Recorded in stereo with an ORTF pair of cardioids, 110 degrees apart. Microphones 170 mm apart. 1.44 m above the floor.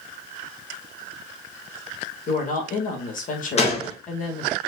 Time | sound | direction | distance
2.3 | a woman speaking | 50° left | 1.9 m
3.6 | a gunshot | 40° left | 1.6 m